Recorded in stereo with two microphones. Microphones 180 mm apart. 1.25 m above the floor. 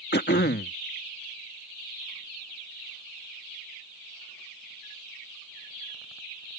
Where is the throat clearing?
70° left (ahead or behind).